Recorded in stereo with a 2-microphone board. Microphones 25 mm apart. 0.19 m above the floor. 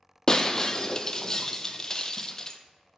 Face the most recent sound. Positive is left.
turn(degrees=25)  # may be behind; listen again after turning